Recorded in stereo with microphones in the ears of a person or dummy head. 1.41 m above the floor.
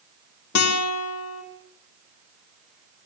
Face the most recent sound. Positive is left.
turn(degrees=85)